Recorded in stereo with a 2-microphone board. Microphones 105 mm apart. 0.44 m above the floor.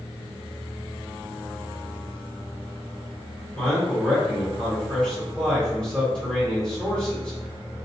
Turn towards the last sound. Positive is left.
turn(degrees=10)  # may be behind; listen again after turning